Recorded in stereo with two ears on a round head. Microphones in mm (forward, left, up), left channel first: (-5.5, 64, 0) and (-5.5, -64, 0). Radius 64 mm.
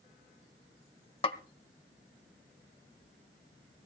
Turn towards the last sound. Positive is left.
turn(degrees=40)  # may be behind; listen again after turning